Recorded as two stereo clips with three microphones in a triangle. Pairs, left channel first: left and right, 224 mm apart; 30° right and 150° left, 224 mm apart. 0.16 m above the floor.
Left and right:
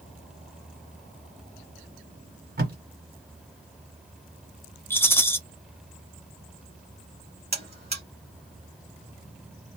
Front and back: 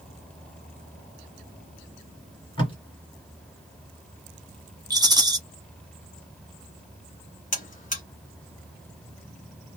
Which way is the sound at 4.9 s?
145° left.